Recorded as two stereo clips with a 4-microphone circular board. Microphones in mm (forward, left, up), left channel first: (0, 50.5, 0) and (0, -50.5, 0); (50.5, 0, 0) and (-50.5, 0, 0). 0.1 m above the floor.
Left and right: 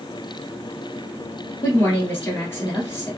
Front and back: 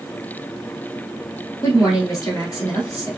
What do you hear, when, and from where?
1.6 s a woman speaking: 35° left, 1.6 m